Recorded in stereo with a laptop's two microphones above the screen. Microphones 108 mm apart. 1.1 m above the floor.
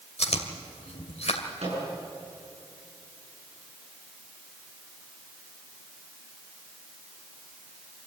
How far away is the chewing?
About 2 m.